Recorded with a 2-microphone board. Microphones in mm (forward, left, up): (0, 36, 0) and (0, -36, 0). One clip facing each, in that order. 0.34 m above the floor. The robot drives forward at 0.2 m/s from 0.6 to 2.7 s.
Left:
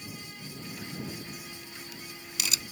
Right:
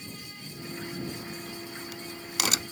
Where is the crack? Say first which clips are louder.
Right 4 dB; 85° right; by 2.6 s 60° right (ahead or behind).